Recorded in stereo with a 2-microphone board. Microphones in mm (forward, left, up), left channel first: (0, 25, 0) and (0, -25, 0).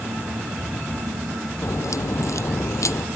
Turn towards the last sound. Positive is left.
turn(degrees=80)